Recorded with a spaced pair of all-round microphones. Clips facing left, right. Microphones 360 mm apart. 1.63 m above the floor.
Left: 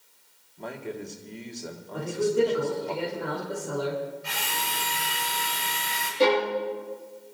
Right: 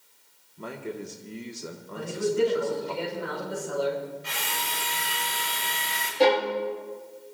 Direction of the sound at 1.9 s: 80° left.